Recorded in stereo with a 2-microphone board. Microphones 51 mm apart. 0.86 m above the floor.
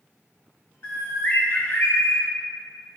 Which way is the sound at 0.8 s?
50° left (ahead or behind).